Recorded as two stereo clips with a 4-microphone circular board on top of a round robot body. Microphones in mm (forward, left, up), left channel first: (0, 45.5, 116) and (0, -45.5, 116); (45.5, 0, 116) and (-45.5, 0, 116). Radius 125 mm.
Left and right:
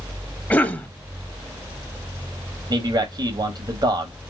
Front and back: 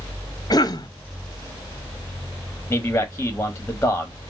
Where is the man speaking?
70° right, 1.2 m.